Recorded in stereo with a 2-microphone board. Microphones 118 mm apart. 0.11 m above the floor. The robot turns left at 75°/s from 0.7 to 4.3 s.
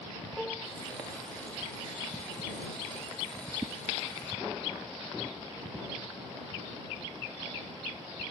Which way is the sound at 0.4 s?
5° left (ahead or behind).